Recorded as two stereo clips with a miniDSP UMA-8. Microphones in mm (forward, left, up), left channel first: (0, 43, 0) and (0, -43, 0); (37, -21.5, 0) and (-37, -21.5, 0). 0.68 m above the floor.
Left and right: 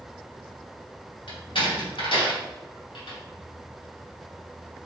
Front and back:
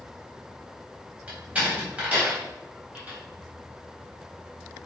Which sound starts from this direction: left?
A door slam, at 1.3 s.